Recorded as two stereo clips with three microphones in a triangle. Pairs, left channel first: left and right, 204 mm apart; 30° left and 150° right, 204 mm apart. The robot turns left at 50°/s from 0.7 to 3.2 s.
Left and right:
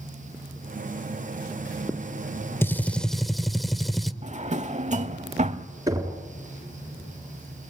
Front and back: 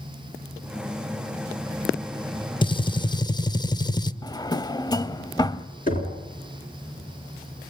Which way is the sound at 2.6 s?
30° left.